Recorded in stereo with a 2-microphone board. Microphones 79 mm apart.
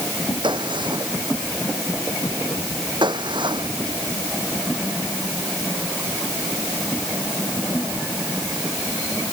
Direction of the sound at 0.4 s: 85° right.